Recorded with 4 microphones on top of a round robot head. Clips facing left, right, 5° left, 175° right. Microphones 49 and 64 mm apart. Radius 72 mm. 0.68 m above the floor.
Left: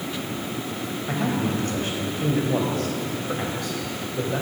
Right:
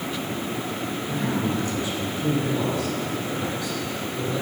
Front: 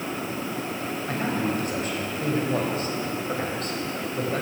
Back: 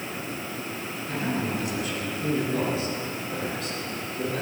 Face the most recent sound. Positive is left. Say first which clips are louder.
# left 2 dB, front 1 dB
turn(degrees=45)